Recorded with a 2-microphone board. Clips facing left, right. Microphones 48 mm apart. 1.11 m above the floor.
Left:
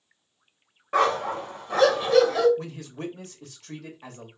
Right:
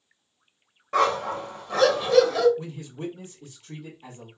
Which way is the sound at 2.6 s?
70° left (ahead or behind).